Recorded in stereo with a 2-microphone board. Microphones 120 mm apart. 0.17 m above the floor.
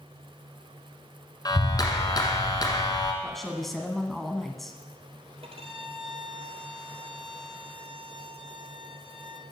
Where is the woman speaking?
Centre (ahead or behind), 1.4 m.